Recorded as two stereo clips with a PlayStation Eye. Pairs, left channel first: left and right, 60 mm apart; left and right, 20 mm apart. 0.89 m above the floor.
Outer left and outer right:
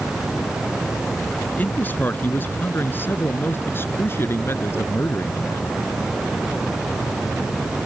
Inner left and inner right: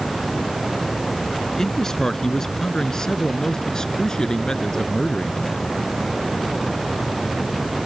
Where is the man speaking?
30° left (ahead or behind); by 5.7 s 45° left (ahead or behind).